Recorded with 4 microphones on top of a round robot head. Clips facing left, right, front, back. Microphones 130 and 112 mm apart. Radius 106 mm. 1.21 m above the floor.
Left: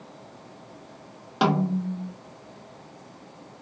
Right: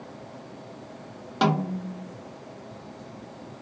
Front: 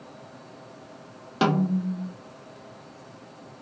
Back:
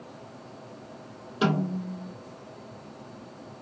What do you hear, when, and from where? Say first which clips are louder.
1.4 s a snare drum: left 2 dB, front 3 dB; 5° left, 1.0 m